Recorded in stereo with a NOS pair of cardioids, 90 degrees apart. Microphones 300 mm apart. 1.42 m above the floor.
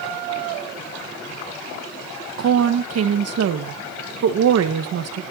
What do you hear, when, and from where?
2.4 s a woman speaking: 60° right, 1.3 m